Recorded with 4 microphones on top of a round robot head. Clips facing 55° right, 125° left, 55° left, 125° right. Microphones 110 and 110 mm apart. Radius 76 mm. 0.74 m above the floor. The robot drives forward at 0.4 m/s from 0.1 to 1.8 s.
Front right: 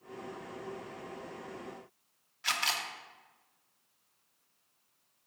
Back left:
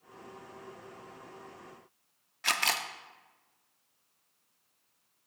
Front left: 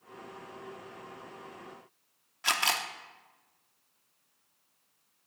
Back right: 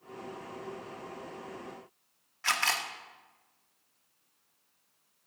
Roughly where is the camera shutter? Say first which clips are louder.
Back left 3 dB, front left 1 dB; behind left.